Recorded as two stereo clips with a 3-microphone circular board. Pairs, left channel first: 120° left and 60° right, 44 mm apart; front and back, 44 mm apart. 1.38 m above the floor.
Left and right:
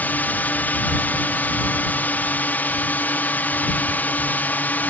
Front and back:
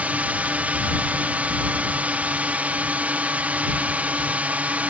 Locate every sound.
0.0 s a drone: 140° left